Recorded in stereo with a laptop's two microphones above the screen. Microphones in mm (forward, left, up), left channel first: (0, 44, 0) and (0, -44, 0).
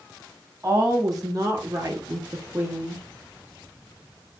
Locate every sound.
0.6 s a woman speaking: 40° right (ahead or behind), 2.0 m; by 3.0 s 5° right (ahead or behind), 0.8 m